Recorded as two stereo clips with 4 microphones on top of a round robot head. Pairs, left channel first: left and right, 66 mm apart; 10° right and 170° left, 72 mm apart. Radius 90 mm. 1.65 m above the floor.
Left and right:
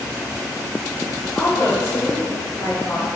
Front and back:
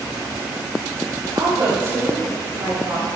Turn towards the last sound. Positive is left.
turn(degrees=135)